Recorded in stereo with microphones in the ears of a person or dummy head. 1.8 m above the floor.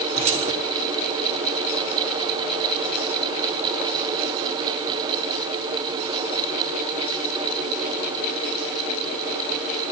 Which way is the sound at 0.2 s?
35° right (ahead or behind).